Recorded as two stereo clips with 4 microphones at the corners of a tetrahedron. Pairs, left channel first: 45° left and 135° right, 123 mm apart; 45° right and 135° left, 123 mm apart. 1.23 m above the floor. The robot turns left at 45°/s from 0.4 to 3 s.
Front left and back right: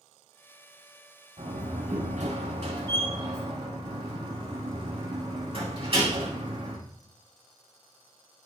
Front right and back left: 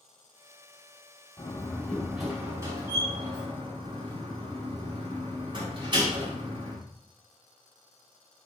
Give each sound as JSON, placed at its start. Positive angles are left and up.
{"t": 1.4, "sound": "a door slam", "azimuth_deg": -100, "distance_m": 9.0}